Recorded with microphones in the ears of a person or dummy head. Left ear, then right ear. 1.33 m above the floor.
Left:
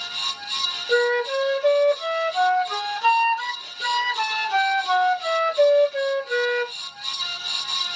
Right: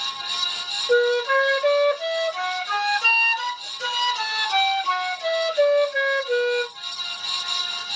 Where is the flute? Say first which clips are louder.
Right 3 dB; 40° right (ahead or behind), 2 m.